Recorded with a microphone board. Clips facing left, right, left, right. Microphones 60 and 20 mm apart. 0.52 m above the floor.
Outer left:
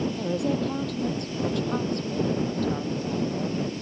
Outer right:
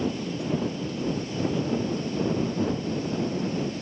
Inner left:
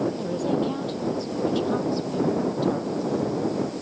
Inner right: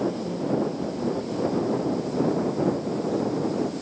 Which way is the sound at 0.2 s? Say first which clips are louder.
Outer left 3 dB, inner left 1 dB; 70° left (ahead or behind).